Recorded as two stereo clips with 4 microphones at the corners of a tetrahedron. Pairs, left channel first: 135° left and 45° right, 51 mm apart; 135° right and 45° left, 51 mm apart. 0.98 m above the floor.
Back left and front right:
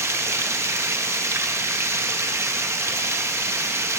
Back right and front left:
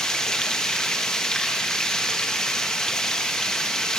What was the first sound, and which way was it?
Running water, 60° right.